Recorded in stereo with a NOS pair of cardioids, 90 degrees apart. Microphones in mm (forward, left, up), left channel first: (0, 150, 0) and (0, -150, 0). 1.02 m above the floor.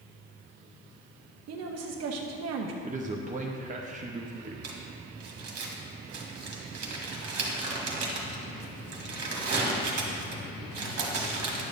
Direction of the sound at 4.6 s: 55° right.